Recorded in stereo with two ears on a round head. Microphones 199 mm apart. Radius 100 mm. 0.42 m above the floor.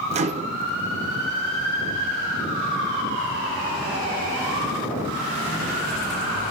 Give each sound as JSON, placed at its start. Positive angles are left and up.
{"t": 0.1, "sound": "a microwave", "side_deg": -30, "distance_m": 0.7}